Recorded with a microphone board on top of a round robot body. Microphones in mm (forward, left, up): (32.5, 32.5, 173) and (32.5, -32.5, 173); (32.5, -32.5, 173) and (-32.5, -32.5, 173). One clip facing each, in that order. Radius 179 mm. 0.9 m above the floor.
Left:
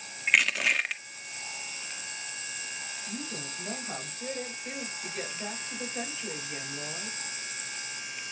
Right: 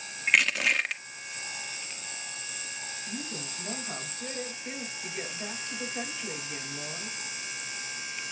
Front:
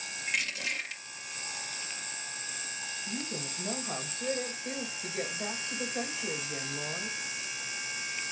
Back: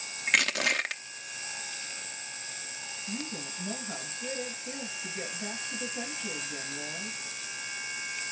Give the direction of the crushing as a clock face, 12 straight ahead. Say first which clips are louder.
Right 1 dB, back 7 dB; 6 o'clock.